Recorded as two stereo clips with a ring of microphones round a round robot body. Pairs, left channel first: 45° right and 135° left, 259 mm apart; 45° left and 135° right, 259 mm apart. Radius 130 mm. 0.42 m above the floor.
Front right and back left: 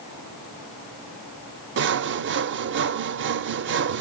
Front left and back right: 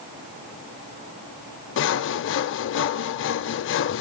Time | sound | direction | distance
1.8 | sawing | 90° left | 0.5 m